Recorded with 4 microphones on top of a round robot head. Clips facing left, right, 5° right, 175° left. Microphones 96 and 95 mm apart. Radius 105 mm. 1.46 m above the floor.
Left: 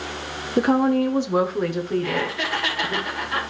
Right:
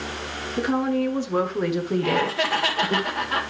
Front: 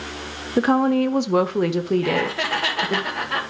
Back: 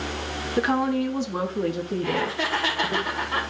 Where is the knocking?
I don't hear knocking.